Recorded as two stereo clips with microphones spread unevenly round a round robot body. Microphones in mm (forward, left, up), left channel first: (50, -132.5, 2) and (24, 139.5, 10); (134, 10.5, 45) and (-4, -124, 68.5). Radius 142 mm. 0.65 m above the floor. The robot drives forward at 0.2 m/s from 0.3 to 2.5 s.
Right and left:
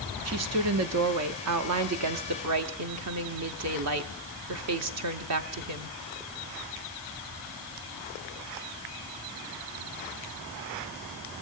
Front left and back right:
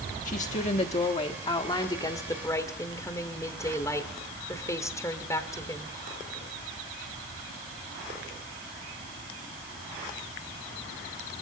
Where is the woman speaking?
80° left, 0.9 m; by 6.0 s 115° left, 0.9 m.